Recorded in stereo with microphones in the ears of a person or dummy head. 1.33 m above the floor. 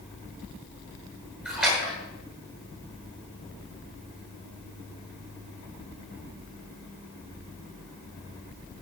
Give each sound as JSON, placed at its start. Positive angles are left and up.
{"t": 1.4, "sound": "a splash", "side_deg": -5, "distance_m": 9.0}